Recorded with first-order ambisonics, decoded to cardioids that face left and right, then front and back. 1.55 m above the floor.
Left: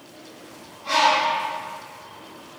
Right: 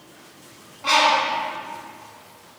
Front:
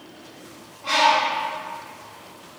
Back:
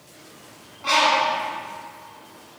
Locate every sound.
0.8 s a bird: 105° right, 1.3 m